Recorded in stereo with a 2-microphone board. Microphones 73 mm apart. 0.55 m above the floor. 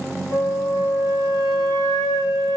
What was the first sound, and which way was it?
A flute, 65° left (ahead or behind).